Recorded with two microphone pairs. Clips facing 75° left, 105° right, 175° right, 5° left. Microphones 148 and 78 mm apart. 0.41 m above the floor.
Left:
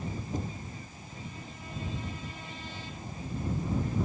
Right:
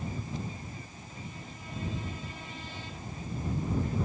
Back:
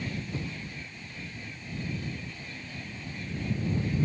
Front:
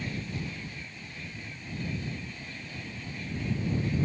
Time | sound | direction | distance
0.3 | knocking | 120° left | ?